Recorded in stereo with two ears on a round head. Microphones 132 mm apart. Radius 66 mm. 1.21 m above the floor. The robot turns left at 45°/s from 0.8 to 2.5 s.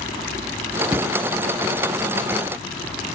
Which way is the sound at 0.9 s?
10° right (ahead or behind).